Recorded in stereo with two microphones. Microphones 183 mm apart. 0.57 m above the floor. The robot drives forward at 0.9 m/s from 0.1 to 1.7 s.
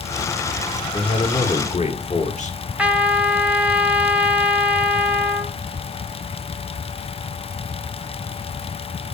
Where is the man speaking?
35° left (ahead or behind), 2.5 m; by 2.6 s 40° left (ahead or behind), 1.9 m.